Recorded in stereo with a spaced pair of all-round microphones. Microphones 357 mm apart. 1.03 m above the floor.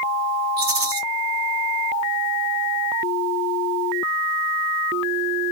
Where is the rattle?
65° right (ahead or behind), 1.2 m.